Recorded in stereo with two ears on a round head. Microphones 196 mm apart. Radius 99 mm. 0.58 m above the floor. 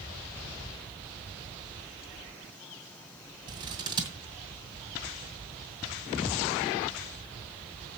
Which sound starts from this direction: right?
Scissors, at 3.5 s.